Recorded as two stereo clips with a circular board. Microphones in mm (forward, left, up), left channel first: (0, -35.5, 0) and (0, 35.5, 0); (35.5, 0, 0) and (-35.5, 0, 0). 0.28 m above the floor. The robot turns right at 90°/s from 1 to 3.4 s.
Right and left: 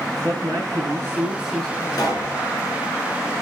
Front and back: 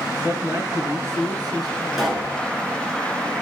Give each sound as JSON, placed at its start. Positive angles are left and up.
{"t": 0.2, "sound": "a man speaking", "azimuth_deg": 140, "distance_m": 4.0}
{"t": 2.0, "sound": "a pop", "azimuth_deg": -90, "distance_m": 4.0}